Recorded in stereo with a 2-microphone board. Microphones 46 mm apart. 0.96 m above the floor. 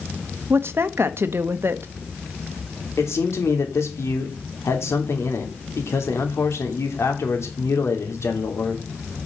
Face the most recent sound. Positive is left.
turn(degrees=80)